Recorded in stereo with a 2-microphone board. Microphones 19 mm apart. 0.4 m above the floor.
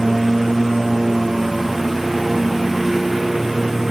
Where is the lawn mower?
10° right (ahead or behind).